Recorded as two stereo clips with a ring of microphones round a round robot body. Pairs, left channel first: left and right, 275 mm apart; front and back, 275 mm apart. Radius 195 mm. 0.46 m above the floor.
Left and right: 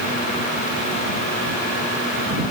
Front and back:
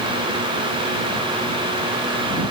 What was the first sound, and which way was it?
Only background noise.